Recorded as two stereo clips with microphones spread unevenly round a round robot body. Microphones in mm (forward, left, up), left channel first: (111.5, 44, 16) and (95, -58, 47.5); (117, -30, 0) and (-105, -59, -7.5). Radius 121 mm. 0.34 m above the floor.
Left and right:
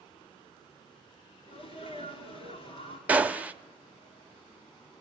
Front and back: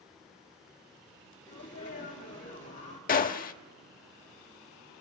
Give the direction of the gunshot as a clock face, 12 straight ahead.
12 o'clock.